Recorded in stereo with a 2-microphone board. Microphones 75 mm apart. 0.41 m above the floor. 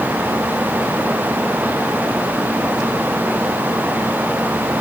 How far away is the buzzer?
No buzzer in this recording.